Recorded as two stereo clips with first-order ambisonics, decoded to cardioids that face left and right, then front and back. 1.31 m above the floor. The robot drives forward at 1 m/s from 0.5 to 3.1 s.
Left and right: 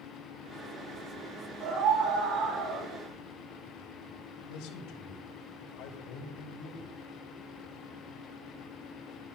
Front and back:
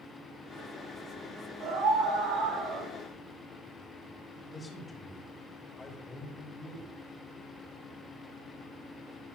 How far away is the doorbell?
I don't hear a doorbell.